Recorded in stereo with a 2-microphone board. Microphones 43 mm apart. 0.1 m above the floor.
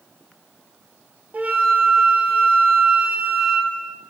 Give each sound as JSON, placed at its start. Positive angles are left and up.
{"t": 1.3, "sound": "a flute", "side_deg": -35, "distance_m": 0.8}